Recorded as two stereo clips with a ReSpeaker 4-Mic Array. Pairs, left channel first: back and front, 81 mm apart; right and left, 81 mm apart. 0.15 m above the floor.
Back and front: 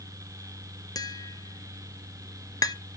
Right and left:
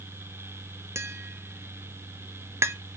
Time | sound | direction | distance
0.9 | tapping | 145° left | 0.6 m